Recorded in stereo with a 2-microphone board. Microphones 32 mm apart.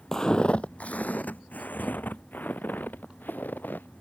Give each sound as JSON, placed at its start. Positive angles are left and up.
{"t": 0.1, "sound": "footsteps", "side_deg": 15}